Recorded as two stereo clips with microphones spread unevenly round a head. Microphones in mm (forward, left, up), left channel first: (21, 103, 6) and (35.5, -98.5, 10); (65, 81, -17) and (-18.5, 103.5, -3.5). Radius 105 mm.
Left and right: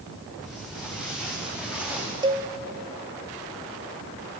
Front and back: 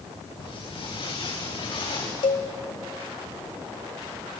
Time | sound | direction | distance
0.4 | footsteps | 5° left | 9.5 m
2.2 | a cowbell | 25° right | 2.5 m